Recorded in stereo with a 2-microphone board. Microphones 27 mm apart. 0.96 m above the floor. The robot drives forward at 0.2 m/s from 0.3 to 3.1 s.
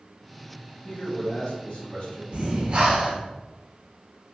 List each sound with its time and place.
0.8 s a man speaking: 55° left (ahead or behind), 1.1 m
2.3 s breathing: 35° right (ahead or behind), 0.6 m; by 3.2 s 30° right (ahead or behind), 0.7 m